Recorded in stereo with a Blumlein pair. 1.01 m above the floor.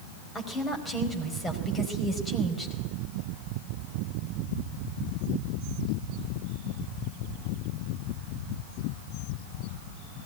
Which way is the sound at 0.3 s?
15° left.